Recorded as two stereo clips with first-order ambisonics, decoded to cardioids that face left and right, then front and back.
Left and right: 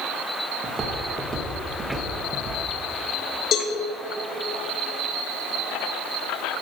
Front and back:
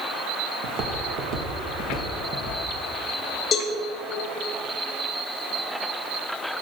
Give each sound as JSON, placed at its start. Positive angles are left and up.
{"t": 0.6, "sound": "footsteps", "azimuth_deg": -160, "distance_m": 1.8}
{"t": 3.5, "sound": "a cowbell", "azimuth_deg": 60, "distance_m": 1.0}